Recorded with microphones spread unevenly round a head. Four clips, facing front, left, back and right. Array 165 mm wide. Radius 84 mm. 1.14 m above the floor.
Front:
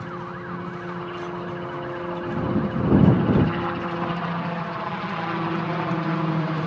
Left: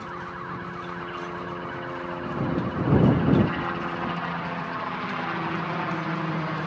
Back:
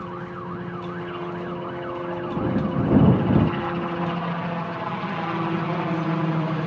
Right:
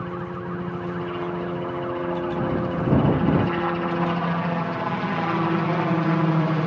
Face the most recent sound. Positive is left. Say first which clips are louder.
# right 4 dB, even
turn(degrees=-90)